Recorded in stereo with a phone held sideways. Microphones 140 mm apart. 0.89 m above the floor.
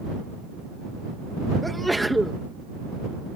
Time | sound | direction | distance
1.6 | a sneeze | centre (ahead or behind) | ?